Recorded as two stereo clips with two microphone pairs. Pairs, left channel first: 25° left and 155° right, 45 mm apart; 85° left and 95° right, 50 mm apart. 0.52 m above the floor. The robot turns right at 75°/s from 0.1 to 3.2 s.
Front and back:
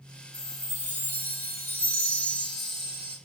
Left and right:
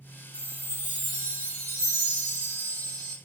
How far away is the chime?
About 3 m.